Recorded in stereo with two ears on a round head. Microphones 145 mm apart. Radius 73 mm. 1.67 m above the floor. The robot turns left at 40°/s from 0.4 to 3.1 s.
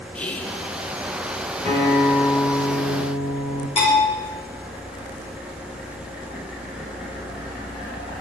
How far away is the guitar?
About 3 m.